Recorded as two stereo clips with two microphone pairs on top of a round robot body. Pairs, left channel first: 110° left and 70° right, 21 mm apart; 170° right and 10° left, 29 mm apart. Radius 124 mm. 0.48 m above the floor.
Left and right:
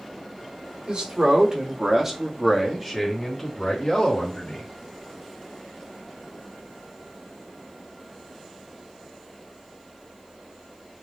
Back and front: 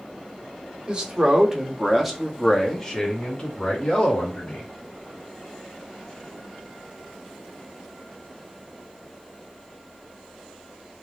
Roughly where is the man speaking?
Ahead right.